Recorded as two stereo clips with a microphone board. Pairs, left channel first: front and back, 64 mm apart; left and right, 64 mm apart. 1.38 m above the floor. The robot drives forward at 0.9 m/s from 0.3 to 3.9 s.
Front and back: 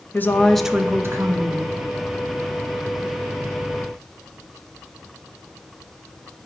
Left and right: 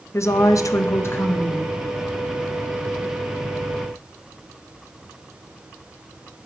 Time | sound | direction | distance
0.1 | a woman speaking | 60° left | 0.5 m